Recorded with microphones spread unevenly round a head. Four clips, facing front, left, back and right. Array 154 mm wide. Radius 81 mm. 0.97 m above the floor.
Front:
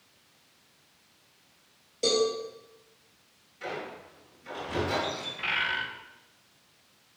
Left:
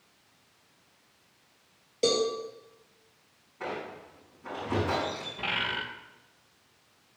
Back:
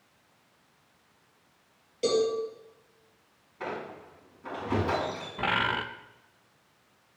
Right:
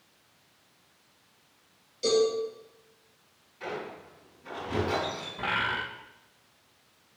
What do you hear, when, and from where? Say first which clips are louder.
2.0 s a cowbell: right 2 dB, back 1 dB; 90° left, 5.5 m
3.6 s a squeak: even, back 1 dB; 140° left, 5.5 m
5.4 s a bird: right 4 dB, back 5 dB; 170° right, 0.8 m